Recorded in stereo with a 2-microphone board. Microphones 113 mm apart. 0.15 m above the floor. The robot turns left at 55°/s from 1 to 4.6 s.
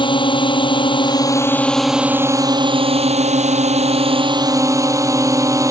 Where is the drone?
45° left; by 5.7 s 150° right.